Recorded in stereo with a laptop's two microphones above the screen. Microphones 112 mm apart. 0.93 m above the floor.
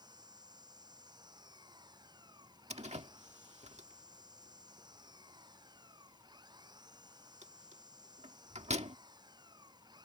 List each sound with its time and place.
0.0 s an engine running: 40° right (ahead or behind)
2.7 s a door slam: 80° right